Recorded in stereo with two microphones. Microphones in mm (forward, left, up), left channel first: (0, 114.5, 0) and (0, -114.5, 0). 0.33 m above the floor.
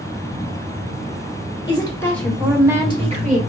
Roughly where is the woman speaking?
Left.